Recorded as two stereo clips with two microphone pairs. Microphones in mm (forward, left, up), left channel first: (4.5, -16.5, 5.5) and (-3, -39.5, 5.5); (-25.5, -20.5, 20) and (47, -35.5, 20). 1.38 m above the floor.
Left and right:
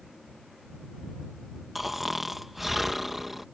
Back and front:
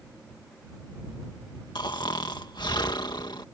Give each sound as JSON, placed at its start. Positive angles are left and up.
{"t": 1.8, "sound": "snoring", "azimuth_deg": 170}